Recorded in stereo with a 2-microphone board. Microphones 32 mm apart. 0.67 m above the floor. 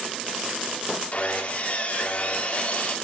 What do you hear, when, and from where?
1.1 s sawing: 50° left (ahead or behind), 1.7 m